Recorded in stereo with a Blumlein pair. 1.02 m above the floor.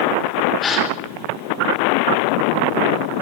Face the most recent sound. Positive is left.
turn(degrees=25)